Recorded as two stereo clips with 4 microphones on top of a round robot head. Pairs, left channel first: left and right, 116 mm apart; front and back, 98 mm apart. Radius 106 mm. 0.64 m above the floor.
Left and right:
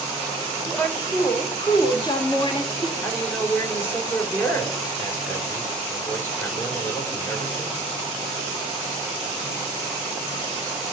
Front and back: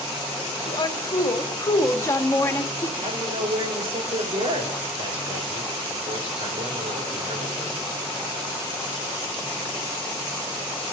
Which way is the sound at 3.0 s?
160° left.